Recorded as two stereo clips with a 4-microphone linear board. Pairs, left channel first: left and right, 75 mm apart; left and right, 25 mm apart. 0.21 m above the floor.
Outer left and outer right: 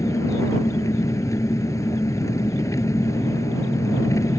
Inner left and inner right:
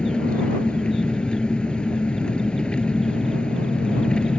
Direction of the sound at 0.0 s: 45° left (ahead or behind).